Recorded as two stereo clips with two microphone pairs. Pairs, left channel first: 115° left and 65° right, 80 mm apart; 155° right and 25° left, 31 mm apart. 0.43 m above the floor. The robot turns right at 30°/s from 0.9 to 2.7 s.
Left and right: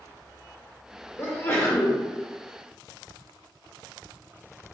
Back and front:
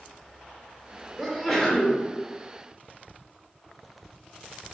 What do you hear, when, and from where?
1.2 s a sneeze: 125° left, 0.9 m; by 2.0 s 150° left, 0.9 m